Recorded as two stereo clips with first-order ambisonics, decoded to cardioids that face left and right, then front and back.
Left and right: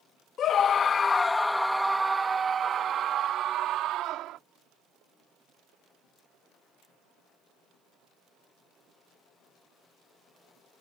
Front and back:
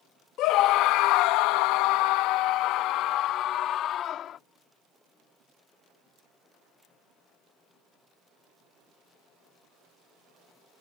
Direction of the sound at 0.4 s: 35° left.